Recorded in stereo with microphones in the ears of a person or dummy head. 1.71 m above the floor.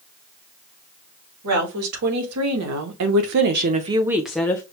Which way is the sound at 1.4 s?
85° right.